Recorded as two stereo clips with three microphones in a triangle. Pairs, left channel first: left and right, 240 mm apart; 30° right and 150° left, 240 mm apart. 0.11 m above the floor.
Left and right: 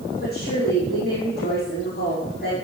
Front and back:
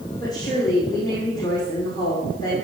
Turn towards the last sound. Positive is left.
turn(degrees=45)